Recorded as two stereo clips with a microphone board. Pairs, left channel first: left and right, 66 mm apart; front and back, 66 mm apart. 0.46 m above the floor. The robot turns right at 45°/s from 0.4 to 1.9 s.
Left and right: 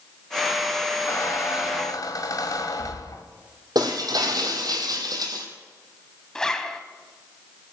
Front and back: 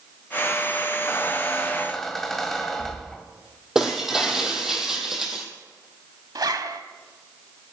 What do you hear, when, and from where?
1.1 s a squeak: 50° left, 1.5 m; by 3.2 s 85° left, 1.5 m
3.8 s breaking glass: 95° right, 2 m
6.3 s a zipper: 170° left, 1.1 m